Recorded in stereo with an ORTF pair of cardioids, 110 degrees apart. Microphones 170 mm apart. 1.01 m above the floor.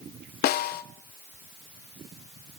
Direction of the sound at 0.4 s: 65° left.